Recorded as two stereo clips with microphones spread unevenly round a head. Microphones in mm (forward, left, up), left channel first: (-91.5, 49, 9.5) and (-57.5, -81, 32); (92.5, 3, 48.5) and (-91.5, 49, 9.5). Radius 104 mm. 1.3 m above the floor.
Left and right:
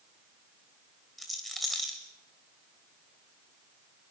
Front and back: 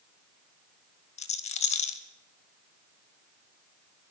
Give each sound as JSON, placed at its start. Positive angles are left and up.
{"t": 1.2, "sound": "a rattle", "azimuth_deg": 5, "distance_m": 1.3}